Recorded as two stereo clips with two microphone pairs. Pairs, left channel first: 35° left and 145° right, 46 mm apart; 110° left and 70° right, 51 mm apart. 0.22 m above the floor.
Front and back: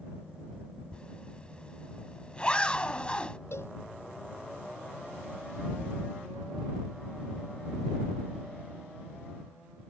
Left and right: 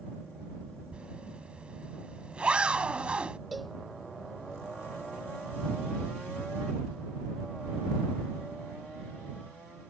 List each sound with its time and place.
0.9 s a zipper: 15° right
3.5 s a cowbell: 20° left